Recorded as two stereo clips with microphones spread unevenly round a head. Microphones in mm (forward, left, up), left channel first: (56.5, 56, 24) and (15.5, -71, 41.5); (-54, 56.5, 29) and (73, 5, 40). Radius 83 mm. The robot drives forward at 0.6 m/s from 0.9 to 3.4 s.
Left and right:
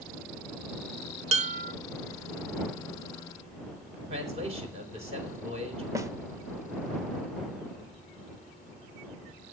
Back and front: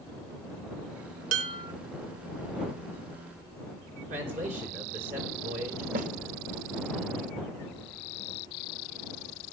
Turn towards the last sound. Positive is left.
turn(degrees=-40)